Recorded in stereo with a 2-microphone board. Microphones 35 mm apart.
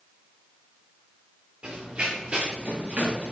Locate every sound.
1.6 s running footsteps: 35° right (ahead or behind), 4.5 m; by 3.3 s 50° right (ahead or behind), 5 m